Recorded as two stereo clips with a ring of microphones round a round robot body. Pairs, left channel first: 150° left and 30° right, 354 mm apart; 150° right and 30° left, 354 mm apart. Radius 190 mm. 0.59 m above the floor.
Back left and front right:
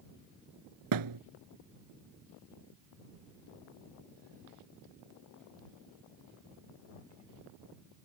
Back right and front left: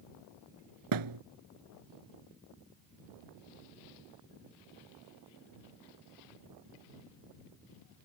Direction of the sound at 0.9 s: Straight ahead.